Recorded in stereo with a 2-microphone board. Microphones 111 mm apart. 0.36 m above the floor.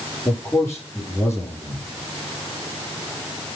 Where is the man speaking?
25° left (ahead or behind), 8.5 m.